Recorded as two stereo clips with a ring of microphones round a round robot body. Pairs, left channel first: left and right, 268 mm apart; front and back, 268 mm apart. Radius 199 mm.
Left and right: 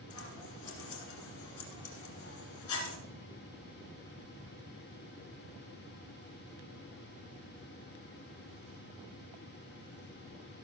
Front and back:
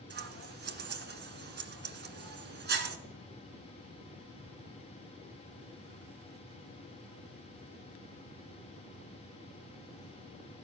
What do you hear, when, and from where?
0.1 s scissors: 130° left, 1.7 m